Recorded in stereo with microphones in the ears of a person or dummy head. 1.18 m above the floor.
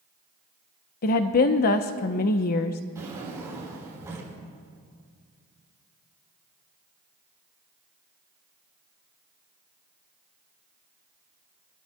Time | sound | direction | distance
1.0 | a woman speaking | 45° left (ahead or behind) | 0.7 m
3.0 | a drawer | 15° right (ahead or behind) | 4 m